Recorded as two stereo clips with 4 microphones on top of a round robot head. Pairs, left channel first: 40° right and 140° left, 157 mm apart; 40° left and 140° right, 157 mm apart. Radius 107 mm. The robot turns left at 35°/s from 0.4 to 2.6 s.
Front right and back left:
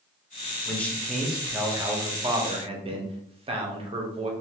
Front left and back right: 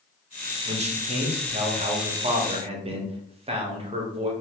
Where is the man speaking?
110° right, 0.8 m; by 4.3 s straight behind, 0.8 m.